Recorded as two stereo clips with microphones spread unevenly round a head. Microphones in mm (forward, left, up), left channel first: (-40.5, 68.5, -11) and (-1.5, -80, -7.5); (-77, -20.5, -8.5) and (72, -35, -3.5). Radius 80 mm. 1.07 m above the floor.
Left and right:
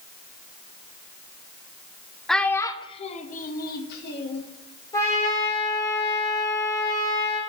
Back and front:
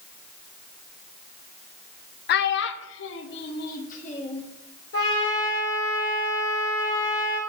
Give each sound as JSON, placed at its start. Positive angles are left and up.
{"t": 2.3, "sound": "a child speaking", "azimuth_deg": -165, "distance_m": 0.6}
{"t": 4.9, "sound": "a trumpet", "azimuth_deg": 175, "distance_m": 3.0}